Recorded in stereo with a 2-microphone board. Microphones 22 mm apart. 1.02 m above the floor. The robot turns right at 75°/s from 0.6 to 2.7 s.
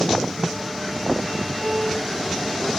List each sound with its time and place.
1.6 s a piano: 55° right, 6.5 m; by 2.0 s 25° right, 6.5 m